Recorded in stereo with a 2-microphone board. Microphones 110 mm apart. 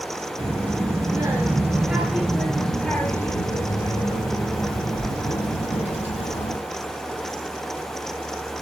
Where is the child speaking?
40° right (ahead or behind), 1.6 m; by 6.6 s 75° left (ahead or behind), 2 m.